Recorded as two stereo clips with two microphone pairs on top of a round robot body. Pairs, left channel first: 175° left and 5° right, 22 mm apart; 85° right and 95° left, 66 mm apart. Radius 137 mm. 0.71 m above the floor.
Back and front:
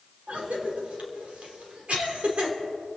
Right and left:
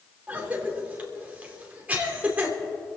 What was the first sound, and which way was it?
A cough, 30° left.